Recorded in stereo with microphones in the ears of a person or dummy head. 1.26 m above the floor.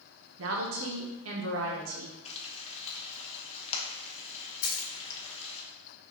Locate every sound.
0.4 s a woman speaking: 85° right, 0.7 m
2.2 s frying: 35° left (ahead or behind), 0.8 m
4.6 s a dropped coin: 50° left (ahead or behind), 1.5 m